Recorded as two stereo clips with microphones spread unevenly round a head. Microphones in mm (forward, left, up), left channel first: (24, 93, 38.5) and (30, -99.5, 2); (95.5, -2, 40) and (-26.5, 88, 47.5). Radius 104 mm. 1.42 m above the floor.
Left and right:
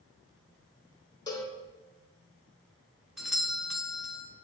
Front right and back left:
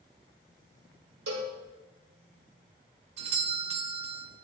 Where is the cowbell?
160° left, 0.9 m.